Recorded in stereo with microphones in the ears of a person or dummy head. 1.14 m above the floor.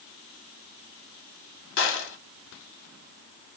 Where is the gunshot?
55° left (ahead or behind), 1.1 m.